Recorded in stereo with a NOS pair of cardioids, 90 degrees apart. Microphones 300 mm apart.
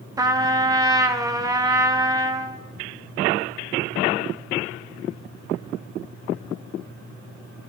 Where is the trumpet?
10° right, 0.8 m.